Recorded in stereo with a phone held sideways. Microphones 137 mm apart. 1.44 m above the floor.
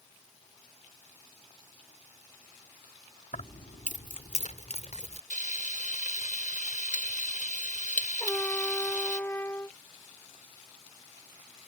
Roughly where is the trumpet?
Centre.